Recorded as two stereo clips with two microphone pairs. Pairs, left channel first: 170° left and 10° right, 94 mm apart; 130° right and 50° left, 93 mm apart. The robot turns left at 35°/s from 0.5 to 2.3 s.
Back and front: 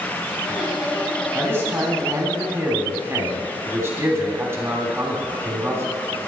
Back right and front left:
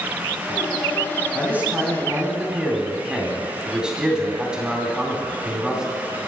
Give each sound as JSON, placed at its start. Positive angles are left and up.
{"t": 1.4, "sound": "a man speaking", "azimuth_deg": 15, "distance_m": 1.8}